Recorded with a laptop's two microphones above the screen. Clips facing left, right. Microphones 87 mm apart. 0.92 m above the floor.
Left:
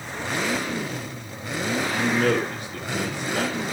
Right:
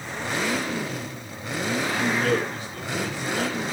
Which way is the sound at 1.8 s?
65° left (ahead or behind).